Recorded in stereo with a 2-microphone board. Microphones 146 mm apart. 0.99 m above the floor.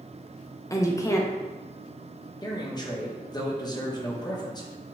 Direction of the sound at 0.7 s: 20° left (ahead or behind).